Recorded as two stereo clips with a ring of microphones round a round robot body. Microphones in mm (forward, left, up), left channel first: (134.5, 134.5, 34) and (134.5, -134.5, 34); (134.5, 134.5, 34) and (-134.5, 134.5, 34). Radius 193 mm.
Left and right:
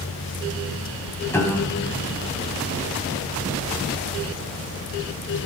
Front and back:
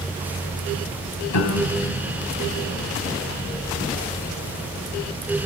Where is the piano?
10° left, 3 m.